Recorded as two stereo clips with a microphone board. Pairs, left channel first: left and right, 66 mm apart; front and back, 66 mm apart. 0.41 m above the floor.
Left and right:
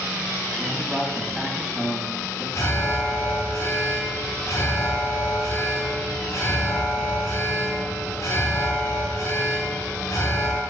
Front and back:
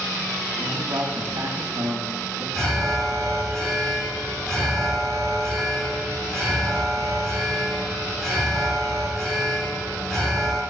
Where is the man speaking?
Straight behind, 3 m.